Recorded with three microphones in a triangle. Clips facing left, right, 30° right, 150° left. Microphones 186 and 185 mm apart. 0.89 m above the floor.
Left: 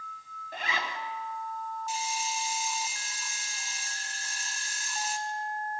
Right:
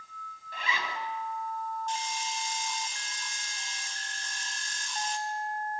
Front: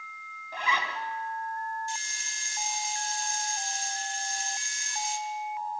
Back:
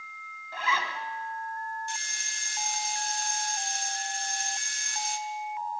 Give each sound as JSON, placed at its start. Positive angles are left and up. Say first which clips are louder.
{"t": 0.5, "sound": "a zipper", "louder": "left 1 dB, even", "azimuth_deg": 45, "distance_m": 3.5}
{"t": 1.9, "sound": "a hiss", "louder": "left 1 dB, front 1 dB", "azimuth_deg": 170, "distance_m": 1.8}